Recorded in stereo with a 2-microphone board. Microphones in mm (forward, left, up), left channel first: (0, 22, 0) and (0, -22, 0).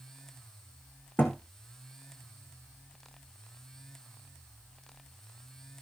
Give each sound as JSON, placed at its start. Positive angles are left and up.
{"t": 1.2, "sound": "a thud", "side_deg": 50, "distance_m": 2.5}